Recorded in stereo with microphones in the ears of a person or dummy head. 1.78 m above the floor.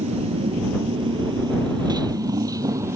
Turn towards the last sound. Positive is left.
turn(degrees=-20)  # may be behind; listen again after turning